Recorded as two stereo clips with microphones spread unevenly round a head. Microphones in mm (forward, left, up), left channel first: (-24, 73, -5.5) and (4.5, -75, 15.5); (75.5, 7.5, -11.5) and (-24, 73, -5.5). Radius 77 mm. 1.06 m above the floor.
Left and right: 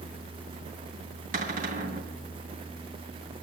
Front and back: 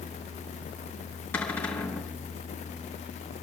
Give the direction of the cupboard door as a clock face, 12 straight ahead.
4 o'clock.